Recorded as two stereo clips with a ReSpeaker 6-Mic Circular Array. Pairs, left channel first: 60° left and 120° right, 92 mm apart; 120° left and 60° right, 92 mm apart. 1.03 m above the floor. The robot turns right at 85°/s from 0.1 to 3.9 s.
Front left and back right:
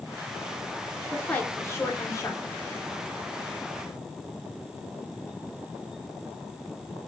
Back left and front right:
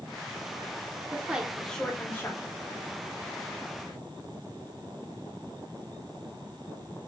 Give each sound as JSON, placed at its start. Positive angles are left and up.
{"t": 1.1, "sound": "a woman speaking", "azimuth_deg": -15, "distance_m": 0.6}